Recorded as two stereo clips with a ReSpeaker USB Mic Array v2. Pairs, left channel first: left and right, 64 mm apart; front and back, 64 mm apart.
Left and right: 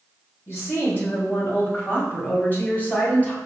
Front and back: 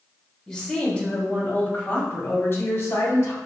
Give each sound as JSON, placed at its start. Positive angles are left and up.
{"t": 0.5, "sound": "a woman speaking", "azimuth_deg": 80, "distance_m": 1.8}